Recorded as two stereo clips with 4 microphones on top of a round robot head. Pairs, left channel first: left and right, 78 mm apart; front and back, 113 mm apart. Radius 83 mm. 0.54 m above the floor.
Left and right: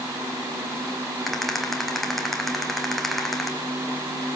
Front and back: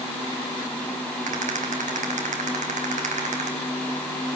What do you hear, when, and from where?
1.3 s a rattle: straight behind, 3 m